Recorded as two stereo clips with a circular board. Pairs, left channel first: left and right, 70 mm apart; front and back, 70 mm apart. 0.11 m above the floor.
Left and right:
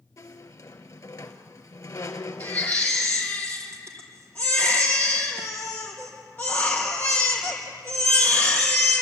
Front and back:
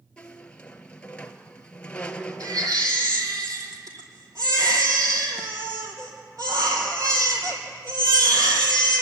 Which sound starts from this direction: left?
A squeak, at 0.2 s.